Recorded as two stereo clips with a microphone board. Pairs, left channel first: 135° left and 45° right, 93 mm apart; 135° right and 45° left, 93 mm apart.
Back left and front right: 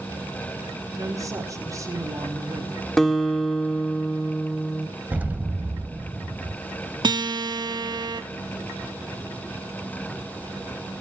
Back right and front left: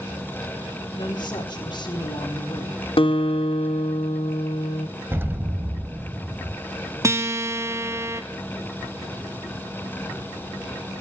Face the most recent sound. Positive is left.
turn(degrees=-10)